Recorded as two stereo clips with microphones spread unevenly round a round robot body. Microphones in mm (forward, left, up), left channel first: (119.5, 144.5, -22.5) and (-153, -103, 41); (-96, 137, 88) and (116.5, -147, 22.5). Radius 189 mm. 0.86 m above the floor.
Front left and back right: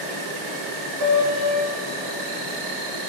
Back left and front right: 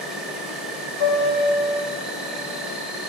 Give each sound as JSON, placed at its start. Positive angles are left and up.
{"t": 0.0, "sound": "an insect", "azimuth_deg": -135, "distance_m": 0.8}
{"t": 1.0, "sound": "a piano", "azimuth_deg": 125, "distance_m": 2.5}